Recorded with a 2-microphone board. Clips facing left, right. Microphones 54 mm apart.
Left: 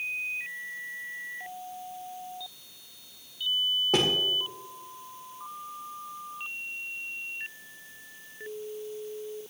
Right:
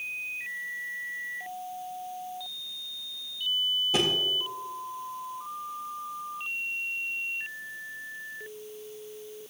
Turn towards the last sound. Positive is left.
turn(degrees=60)  # may be behind; listen again after turning